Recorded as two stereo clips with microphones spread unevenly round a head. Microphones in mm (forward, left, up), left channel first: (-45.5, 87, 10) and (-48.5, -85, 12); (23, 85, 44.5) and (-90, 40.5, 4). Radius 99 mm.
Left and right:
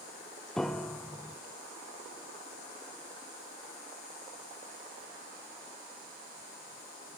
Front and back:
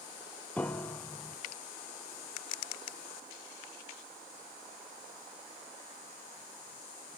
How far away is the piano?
About 0.6 m.